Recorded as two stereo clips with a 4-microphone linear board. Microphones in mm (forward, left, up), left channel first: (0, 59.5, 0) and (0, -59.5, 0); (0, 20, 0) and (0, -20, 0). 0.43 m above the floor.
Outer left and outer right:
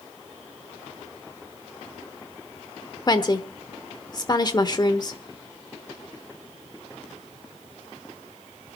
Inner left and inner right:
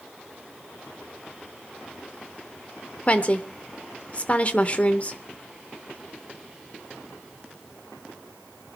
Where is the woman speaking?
35° left (ahead or behind), 1.0 m.